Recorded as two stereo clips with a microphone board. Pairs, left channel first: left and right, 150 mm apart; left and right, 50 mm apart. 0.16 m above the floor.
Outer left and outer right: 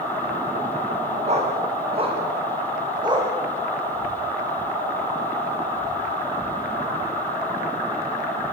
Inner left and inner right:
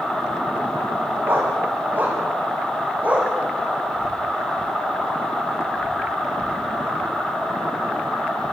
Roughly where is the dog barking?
Right.